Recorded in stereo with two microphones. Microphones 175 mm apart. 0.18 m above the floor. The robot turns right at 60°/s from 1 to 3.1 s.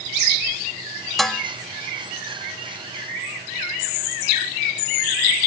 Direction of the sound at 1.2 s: Centre (ahead or behind).